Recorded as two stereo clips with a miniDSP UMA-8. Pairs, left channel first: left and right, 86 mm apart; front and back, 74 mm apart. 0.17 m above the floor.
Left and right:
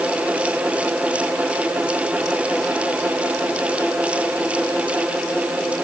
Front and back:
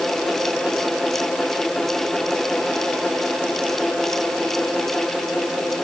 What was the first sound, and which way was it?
Only background noise.